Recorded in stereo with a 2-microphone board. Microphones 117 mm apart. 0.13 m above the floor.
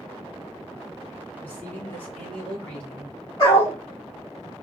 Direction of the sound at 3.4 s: 35° left (ahead or behind).